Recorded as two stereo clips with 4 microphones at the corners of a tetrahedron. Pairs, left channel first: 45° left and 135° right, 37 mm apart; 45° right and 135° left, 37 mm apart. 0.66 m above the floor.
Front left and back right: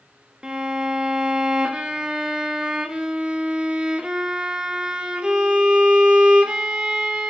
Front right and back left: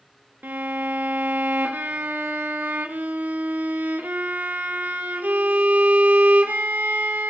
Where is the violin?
160° left, 0.6 m.